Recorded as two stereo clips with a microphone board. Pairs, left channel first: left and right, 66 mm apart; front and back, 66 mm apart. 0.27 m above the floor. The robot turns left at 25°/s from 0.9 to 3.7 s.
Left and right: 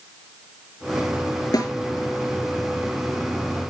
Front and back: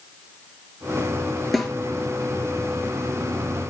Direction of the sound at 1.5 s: 90° left.